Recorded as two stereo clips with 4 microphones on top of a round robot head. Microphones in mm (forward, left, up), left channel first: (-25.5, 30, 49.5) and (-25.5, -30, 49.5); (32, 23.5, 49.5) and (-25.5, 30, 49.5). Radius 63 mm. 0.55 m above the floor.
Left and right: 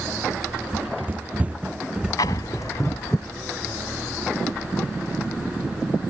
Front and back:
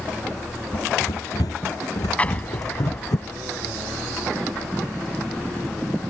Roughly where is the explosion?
Ahead left.